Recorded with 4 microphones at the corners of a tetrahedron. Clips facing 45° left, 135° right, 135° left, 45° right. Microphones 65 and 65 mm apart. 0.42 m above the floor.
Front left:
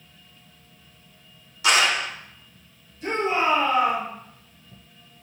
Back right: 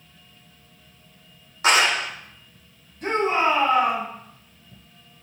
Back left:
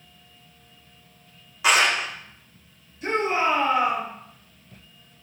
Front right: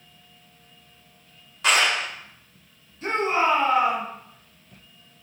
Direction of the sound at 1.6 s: 145° right.